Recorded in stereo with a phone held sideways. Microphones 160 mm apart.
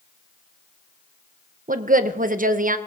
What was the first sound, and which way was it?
A woman speaking, 60° right (ahead or behind).